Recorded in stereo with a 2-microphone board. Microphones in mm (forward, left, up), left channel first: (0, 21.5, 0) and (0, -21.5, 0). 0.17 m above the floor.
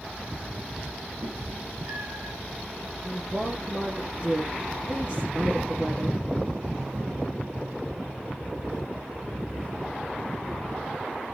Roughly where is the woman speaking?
Right.